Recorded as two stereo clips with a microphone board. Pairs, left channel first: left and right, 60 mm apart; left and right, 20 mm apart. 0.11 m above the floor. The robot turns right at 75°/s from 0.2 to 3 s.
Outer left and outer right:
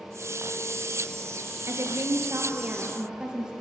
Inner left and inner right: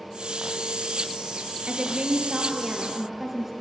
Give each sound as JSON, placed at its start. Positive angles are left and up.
{"t": 1.7, "sound": "a woman speaking", "azimuth_deg": -120, "distance_m": 2.0}